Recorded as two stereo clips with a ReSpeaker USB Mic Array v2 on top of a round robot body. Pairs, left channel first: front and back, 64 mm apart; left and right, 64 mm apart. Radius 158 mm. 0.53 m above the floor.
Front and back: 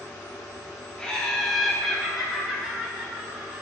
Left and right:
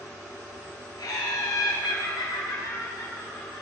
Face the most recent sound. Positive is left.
turn(degrees=105)